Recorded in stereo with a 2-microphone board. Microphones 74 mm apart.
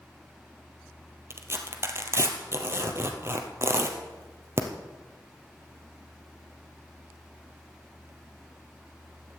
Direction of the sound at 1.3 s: 35° right (ahead or behind).